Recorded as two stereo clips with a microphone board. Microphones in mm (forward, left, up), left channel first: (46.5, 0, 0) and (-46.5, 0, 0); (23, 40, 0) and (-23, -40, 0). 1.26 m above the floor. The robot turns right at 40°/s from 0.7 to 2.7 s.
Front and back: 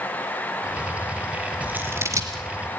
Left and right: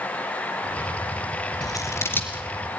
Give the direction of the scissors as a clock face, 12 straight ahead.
9 o'clock.